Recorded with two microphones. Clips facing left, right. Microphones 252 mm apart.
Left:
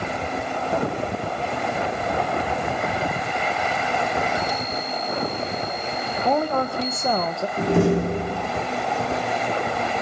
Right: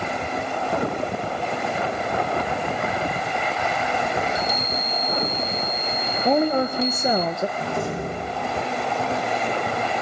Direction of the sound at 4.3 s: 20° right (ahead or behind).